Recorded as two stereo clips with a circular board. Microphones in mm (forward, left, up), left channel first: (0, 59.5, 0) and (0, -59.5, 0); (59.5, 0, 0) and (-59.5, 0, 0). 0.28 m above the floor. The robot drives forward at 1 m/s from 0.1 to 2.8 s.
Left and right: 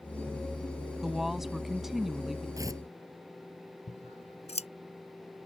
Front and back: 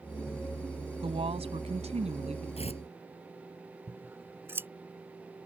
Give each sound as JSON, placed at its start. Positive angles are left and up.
{"t": 1.0, "sound": "a woman speaking", "azimuth_deg": -175}
{"t": 2.6, "sound": "tearing paper", "azimuth_deg": -30}
{"t": 3.9, "sound": "scissors", "azimuth_deg": 110}